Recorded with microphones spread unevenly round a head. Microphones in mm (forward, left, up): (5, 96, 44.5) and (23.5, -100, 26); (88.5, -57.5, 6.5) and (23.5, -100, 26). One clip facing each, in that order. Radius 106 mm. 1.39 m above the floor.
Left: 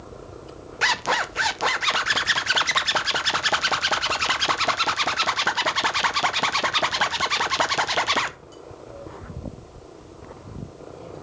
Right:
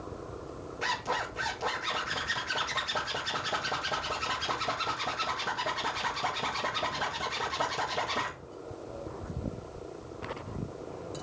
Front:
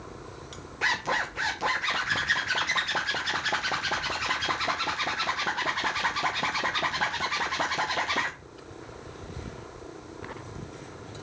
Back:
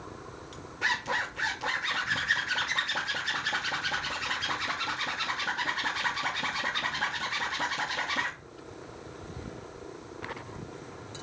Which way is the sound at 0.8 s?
95° left.